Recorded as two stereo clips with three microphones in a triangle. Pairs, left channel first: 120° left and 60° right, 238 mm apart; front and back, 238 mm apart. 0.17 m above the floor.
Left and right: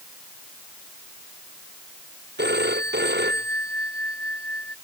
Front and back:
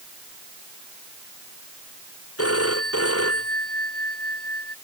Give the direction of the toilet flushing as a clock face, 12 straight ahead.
I don't hear a toilet flushing.